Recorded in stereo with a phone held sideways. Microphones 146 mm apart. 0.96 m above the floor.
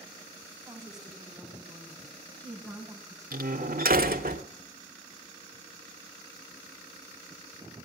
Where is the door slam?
85° right, 1.7 m.